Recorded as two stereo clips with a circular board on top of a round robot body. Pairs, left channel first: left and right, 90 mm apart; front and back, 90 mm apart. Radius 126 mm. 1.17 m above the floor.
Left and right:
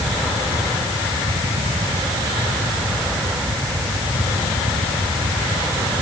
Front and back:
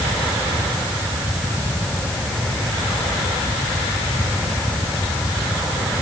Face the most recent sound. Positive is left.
No sound to turn to.